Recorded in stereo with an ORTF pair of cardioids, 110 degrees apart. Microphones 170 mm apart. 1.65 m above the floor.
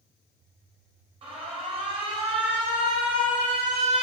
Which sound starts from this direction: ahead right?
An alarm, at 1.2 s.